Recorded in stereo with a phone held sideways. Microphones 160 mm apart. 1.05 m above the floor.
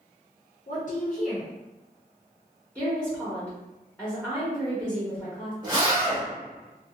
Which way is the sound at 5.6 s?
25° right (ahead or behind).